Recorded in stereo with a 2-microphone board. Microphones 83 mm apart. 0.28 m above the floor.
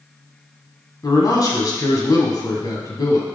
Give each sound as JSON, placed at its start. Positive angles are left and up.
{"t": 1.0, "sound": "a man speaking", "side_deg": 50, "distance_m": 2.5}